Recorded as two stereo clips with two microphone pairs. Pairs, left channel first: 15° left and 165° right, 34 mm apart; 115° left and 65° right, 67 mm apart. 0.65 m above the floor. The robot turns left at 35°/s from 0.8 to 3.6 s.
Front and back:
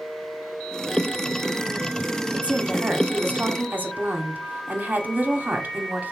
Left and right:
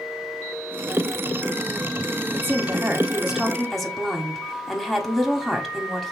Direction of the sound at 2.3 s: 115° right.